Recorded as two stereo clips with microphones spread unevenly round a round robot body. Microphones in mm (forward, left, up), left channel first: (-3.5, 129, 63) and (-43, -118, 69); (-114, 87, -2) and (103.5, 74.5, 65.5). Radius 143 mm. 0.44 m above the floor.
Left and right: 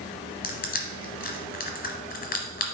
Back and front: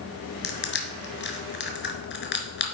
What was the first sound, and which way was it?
Crushing, 140° left.